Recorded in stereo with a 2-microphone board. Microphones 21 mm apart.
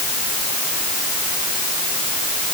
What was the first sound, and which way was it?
Only background noise.